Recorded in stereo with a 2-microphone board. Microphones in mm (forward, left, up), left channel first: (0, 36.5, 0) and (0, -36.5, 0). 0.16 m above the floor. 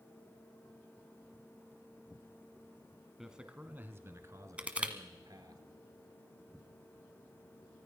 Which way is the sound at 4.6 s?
15° right (ahead or behind).